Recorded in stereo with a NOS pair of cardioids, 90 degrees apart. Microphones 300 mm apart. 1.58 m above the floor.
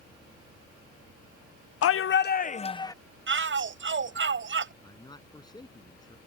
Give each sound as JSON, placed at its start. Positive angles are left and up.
{"t": 1.8, "sound": "a shout", "azimuth_deg": 50}
{"t": 3.3, "sound": "a shout", "azimuth_deg": -40}
{"t": 4.8, "sound": "a man speaking", "azimuth_deg": 15}